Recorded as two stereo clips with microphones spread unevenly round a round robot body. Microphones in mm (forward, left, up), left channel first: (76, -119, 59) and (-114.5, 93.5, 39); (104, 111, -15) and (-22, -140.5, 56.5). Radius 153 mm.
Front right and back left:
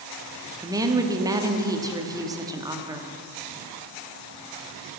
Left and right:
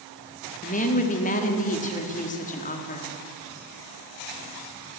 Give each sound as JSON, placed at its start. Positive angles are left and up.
{"t": 0.6, "sound": "a woman speaking", "azimuth_deg": 65, "distance_m": 1.0}